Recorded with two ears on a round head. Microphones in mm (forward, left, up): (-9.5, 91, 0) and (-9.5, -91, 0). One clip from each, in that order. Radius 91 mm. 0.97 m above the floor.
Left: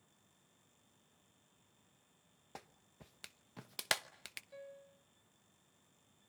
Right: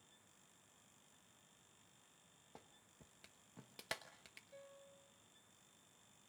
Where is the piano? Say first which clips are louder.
Left 6 dB; 25° left (ahead or behind), 3 m.